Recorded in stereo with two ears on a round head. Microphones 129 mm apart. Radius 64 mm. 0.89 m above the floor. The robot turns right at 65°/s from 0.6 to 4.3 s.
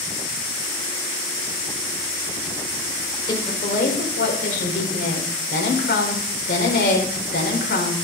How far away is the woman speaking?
About 4 m.